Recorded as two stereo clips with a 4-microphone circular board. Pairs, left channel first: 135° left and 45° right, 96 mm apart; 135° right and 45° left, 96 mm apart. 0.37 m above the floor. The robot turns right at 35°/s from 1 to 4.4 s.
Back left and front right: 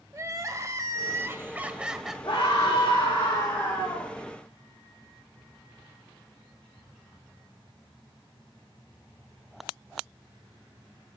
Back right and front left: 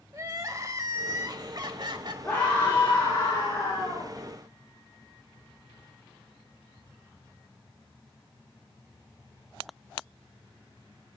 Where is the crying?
5° left, 1.2 m; by 2.1 s 45° left, 1.2 m.